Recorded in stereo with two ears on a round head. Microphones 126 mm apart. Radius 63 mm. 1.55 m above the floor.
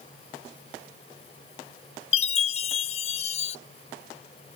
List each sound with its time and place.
2.1 s a chime: 45° left (ahead or behind)